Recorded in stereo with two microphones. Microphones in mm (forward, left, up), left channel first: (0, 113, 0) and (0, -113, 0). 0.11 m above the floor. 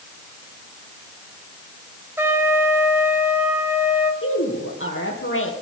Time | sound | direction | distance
2.2 | a trumpet | 10° right (ahead or behind) | 1.9 m
4.2 | a woman speaking | 65° left (ahead or behind) | 3.5 m